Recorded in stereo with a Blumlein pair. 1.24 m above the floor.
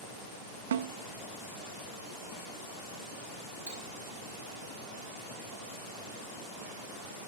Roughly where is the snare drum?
Ahead right.